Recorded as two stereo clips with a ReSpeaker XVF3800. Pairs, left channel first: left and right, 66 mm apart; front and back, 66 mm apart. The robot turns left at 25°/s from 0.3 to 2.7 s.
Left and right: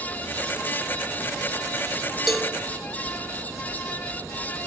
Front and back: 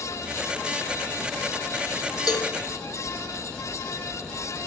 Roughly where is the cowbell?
Ahead.